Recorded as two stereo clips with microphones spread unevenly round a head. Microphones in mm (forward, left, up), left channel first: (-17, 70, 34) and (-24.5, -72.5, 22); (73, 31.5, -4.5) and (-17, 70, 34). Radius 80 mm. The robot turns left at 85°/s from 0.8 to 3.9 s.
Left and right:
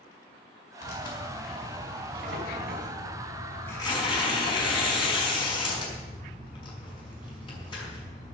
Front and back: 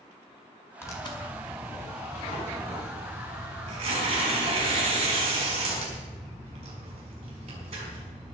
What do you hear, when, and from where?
0.8 s tearing paper: 45° left, 5.5 m; by 8.3 s 145° left, 5.5 m